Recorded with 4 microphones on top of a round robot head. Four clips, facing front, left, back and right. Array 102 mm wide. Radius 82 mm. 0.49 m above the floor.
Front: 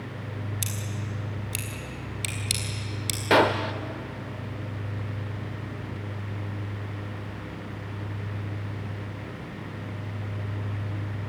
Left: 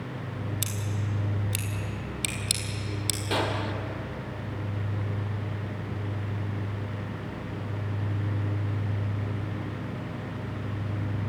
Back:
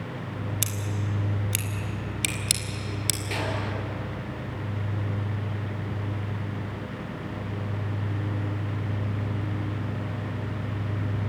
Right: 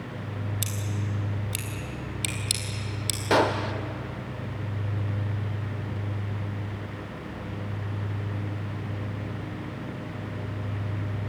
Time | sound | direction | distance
0.6 | scissors | 175° left | 3.5 m
3.3 | a gunshot | 25° right | 1.0 m